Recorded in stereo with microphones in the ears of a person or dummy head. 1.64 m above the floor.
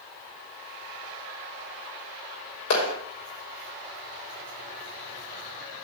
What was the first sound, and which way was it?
A clap, 70° left (ahead or behind).